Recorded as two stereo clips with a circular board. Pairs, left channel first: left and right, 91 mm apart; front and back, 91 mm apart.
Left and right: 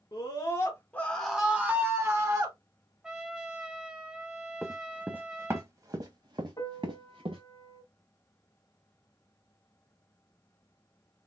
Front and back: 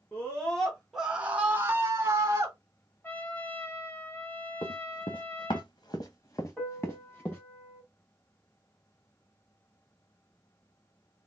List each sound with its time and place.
0.1 s a scream: 70° left, 1.4 m; by 2.5 s 130° right, 1.7 m
3.0 s a trumpet: 20° right, 0.9 m
4.6 s running footsteps: 5° right, 1.1 m; by 7.4 s 75° right, 1.6 m
6.6 s a piano: 70° left, 1.1 m